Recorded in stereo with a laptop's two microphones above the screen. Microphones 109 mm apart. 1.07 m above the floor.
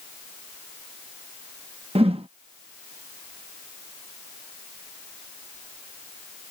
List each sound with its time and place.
1.9 s a whoosh: 60° right (ahead or behind)